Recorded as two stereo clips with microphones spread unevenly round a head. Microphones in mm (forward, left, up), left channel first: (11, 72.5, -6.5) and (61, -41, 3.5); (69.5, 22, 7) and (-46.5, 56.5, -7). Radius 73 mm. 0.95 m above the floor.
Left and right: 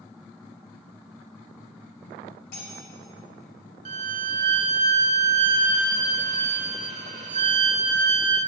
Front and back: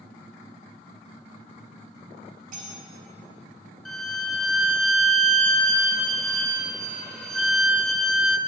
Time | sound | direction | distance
2.5 | cutlery clinking | 150° left | 3 m
3.9 | a violin | 100° right | 1.2 m